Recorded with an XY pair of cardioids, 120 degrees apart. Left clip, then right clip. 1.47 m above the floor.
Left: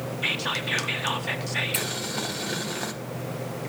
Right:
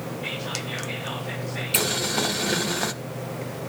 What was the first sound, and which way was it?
Whispering, 65° left.